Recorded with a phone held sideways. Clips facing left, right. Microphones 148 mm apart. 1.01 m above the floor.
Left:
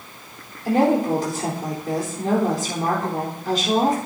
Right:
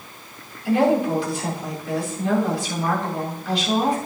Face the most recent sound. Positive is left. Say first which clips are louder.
# even
turn(degrees=45)  # may be behind; listen again after turning